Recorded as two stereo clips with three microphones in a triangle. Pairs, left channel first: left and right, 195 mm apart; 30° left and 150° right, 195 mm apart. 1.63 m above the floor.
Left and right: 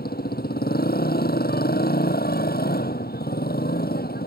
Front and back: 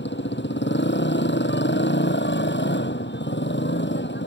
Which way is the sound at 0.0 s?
55° left.